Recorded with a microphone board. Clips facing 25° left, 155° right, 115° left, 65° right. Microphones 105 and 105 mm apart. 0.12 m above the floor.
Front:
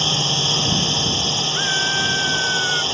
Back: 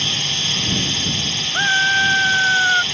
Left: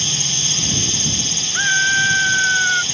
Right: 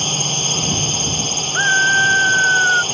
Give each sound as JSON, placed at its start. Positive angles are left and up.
{"t": 0.0, "sound": "a drone", "azimuth_deg": -30}
{"t": 1.5, "sound": "a scream", "azimuth_deg": -120}